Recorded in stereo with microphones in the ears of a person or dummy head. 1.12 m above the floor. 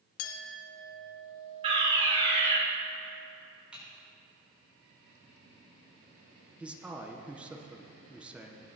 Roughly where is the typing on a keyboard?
Centre.